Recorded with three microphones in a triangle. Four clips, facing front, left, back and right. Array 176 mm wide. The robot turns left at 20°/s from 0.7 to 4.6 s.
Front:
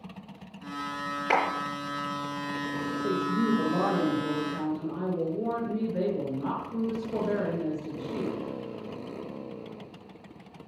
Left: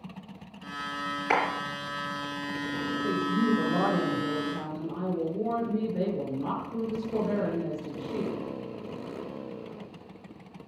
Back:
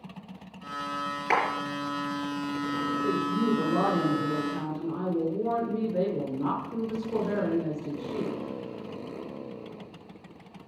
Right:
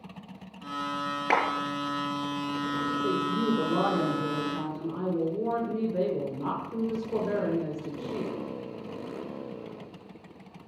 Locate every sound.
1.3 s a clap: 75° right, 5 m; by 1.5 s 80° right, 5 m
3.0 s a woman speaking: 105° right, 6 m; by 8.3 s 135° right, 6 m